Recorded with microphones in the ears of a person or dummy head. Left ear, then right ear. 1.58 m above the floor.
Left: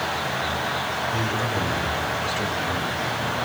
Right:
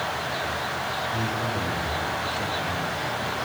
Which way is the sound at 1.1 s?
40° left (ahead or behind).